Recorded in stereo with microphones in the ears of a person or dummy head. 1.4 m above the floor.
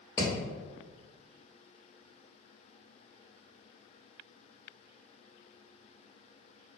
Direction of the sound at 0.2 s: 20° left (ahead or behind).